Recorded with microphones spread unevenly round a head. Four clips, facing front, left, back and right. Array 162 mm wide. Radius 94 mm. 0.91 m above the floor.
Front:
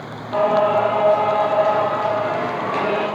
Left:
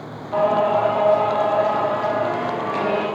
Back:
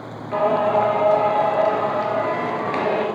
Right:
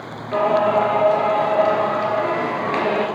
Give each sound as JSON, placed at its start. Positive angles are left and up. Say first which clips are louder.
{"t": 0.3, "sound": "singing", "louder": "right 1 dB, front 2 dB", "azimuth_deg": -115, "distance_m": 3.5}